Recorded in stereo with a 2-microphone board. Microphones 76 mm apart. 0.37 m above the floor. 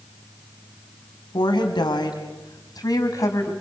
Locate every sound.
1.3 s a woman speaking: 70° left (ahead or behind), 4 m; by 3.5 s 40° left (ahead or behind), 3.5 m